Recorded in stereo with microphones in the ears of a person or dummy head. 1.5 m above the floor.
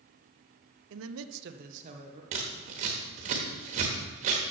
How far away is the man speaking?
About 0.7 m.